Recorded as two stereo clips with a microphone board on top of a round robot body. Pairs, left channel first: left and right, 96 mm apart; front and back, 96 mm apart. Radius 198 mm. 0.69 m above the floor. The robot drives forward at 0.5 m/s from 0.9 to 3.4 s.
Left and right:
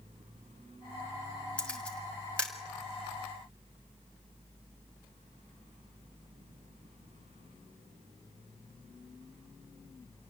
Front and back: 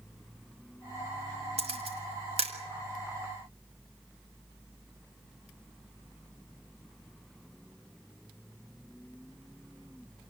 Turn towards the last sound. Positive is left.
turn(degrees=170)